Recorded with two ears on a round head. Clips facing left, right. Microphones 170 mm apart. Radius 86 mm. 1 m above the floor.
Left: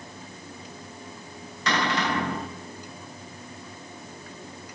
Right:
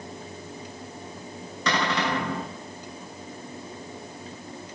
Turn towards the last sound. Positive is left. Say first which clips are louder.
# even
turn(degrees=-85)